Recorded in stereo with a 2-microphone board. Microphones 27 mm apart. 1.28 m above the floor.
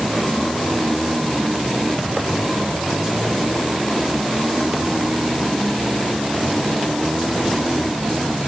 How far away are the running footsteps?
I don't hear running footsteps.